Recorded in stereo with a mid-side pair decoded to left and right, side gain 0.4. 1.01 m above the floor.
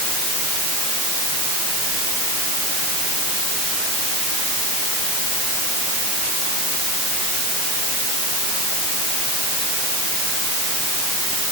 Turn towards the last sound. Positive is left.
No sound to turn to.